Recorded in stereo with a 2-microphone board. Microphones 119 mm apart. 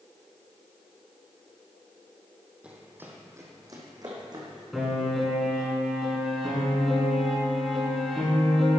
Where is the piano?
Centre (ahead or behind), 4 m.